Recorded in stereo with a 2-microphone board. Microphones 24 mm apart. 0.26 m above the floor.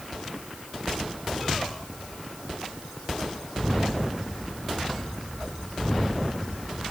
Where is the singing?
I don't hear singing.